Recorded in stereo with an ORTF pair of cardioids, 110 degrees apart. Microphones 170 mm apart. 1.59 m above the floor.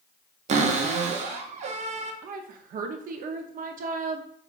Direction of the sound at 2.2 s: 55° right.